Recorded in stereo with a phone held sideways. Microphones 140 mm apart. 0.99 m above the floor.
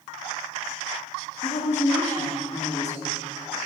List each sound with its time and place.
1.4 s a woman speaking: 55° left (ahead or behind), 2 m